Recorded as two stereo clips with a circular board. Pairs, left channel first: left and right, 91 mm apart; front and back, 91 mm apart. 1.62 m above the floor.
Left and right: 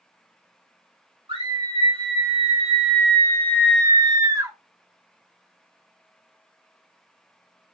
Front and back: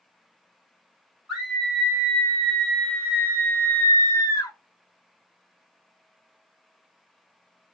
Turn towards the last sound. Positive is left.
turn(degrees=-35)